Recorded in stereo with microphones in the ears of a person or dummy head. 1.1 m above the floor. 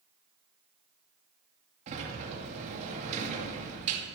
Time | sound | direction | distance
1.9 | a sliding door | 40° right (ahead or behind) | 2 m